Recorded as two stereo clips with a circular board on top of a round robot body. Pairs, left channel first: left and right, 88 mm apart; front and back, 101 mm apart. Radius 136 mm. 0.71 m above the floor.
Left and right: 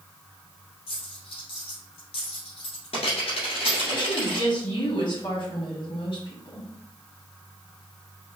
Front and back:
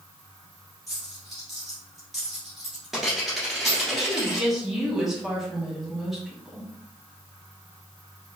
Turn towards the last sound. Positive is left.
turn(degrees=90)